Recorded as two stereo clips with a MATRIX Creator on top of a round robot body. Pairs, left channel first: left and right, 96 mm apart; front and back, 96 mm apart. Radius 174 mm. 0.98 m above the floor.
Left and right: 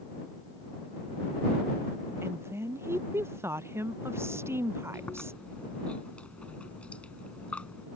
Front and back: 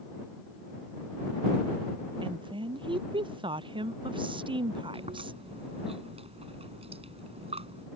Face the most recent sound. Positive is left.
turn(degrees=170)